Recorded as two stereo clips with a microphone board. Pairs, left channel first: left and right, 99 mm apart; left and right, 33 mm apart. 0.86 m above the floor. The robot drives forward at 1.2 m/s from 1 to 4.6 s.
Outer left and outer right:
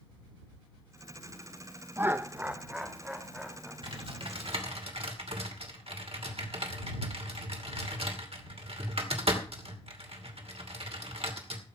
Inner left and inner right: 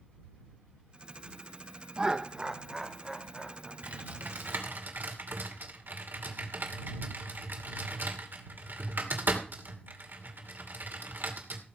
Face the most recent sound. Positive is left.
turn(degrees=-75)  # may be behind; listen again after turning